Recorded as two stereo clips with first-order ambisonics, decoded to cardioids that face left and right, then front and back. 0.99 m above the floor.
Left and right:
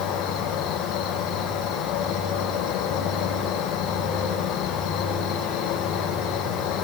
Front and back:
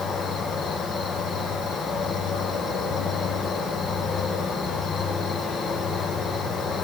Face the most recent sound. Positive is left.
turn(degrees=60)